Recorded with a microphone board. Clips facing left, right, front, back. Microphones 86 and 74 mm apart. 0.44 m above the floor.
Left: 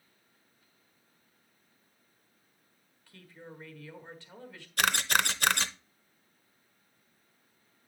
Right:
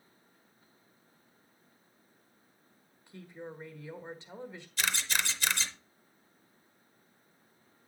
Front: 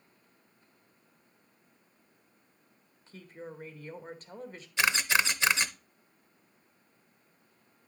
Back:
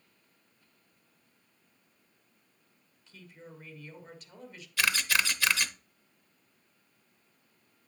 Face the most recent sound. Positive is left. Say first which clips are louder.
# left 6 dB, front 2 dB
turn(degrees=65)